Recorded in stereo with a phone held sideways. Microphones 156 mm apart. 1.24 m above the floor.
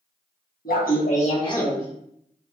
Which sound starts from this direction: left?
Laughter, at 0.7 s.